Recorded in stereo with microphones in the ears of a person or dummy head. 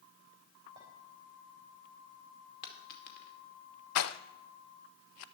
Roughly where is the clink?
Centre.